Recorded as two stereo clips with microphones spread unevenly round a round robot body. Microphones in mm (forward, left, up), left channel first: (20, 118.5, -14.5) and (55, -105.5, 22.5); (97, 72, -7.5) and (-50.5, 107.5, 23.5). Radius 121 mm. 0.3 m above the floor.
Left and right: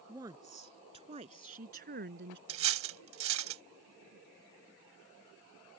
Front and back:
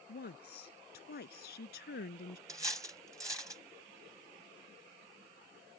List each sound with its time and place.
0.1 s a woman speaking: 5° right; by 2.4 s 40° right
2.5 s cutlery clinking: 115° right